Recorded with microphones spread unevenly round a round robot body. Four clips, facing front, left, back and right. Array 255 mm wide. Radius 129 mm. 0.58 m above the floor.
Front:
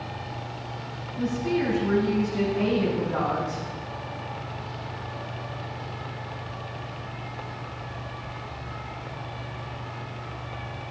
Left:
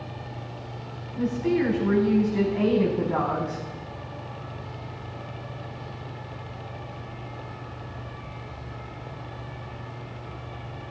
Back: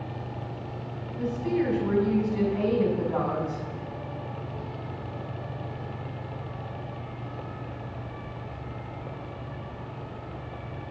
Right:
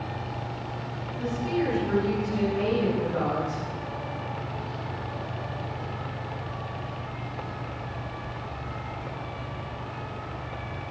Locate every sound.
1.2 s a woman speaking: 85° left, 5.5 m